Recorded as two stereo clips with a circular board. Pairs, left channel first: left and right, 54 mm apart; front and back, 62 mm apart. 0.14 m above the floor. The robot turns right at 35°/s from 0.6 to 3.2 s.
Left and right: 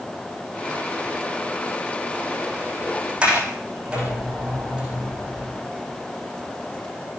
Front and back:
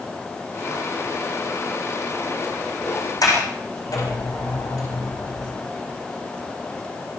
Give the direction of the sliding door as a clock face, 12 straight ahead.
1 o'clock.